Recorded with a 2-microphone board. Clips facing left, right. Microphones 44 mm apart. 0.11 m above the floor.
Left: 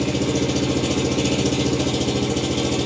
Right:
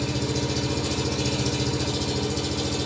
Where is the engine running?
65° left (ahead or behind), 1.2 m.